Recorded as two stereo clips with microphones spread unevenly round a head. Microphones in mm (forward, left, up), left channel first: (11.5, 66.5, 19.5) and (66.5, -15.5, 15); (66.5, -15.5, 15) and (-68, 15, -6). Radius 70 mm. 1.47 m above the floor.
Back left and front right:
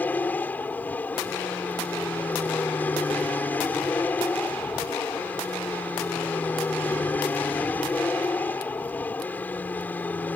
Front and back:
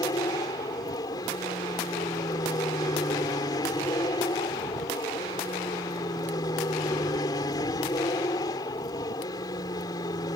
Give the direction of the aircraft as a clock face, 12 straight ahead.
10 o'clock.